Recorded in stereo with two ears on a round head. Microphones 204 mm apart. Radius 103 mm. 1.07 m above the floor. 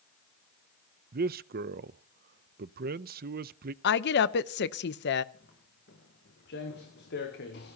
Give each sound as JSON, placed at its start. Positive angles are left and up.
{"t": 1.1, "sound": "a man speaking", "side_deg": -45, "distance_m": 0.5}
{"t": 3.8, "sound": "a woman speaking", "side_deg": 50, "distance_m": 0.8}
{"t": 5.3, "sound": "footsteps", "side_deg": 50, "distance_m": 5.5}